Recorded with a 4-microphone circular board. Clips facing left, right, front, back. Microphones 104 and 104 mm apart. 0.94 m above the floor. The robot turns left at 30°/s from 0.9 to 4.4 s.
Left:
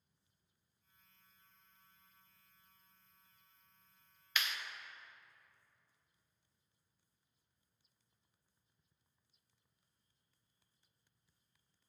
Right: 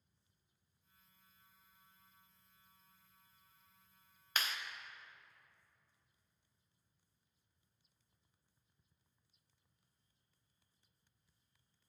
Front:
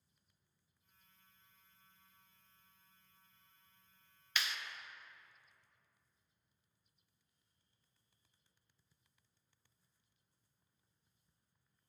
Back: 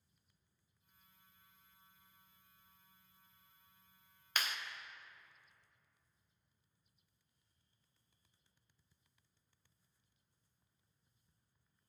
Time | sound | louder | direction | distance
4.4 | a clap | even, back 1 dB | 140° right | 0.5 m